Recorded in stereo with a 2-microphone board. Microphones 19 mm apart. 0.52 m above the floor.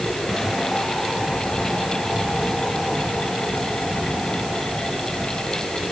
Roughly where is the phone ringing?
I don't hear a phone ringing.